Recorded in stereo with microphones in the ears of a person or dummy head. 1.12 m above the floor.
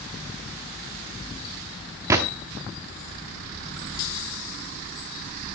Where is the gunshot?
10° right (ahead or behind), 0.8 m.